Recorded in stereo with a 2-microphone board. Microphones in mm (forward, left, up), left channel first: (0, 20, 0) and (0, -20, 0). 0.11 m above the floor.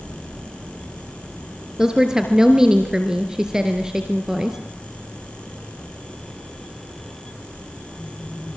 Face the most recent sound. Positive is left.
turn(degrees=-15)  # may be behind; listen again after turning